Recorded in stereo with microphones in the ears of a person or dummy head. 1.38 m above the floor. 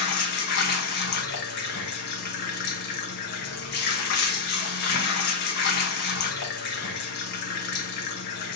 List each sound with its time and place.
0.0 s running water: 55° left (ahead or behind), 1.1 m